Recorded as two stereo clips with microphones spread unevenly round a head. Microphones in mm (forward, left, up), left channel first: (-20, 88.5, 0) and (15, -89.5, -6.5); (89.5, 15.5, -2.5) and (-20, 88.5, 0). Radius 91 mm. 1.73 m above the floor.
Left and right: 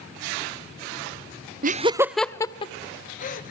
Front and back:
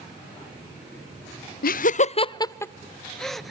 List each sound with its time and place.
1.6 s laughter: 35° right, 0.5 m; by 3.5 s 55° left, 1.3 m